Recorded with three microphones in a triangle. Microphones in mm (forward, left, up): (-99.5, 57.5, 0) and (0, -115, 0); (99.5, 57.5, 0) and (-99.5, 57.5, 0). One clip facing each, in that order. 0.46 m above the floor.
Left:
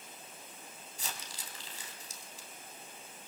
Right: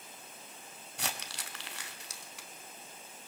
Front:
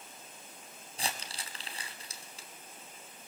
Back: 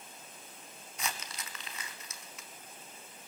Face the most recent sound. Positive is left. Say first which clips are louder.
# right 5 dB, front 1 dB
turn(degrees=-55)